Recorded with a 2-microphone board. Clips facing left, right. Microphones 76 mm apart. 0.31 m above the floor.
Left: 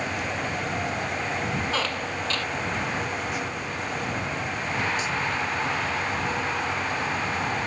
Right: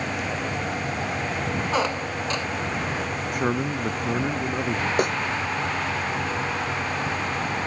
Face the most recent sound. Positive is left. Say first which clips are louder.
# right 6 dB
turn(degrees=-65)  # may be behind; listen again after turning